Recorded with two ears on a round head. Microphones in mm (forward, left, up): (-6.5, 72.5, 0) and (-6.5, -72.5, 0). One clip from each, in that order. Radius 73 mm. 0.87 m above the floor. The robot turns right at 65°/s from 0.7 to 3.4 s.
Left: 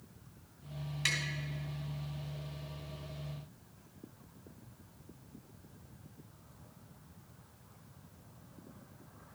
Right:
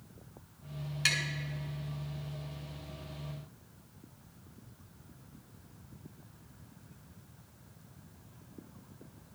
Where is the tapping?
20° right (ahead or behind), 2 m; by 1.2 s 25° right (ahead or behind), 2 m.